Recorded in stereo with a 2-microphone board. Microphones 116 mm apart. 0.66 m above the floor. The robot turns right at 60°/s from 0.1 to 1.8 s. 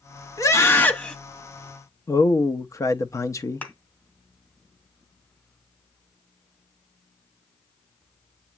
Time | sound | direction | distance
0.4 | a scream | 120° left | 1.0 m
2.1 | a man speaking | 30° left (ahead or behind) | 0.6 m
3.6 | a thud | 15° left (ahead or behind) | 1.3 m